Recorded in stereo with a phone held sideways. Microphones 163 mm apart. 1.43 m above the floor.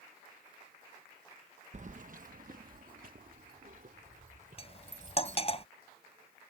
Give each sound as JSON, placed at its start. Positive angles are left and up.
{"t": 1.7, "sound": "keys jangling", "side_deg": -50}
{"t": 4.6, "sound": "cutlery clinking", "side_deg": 35}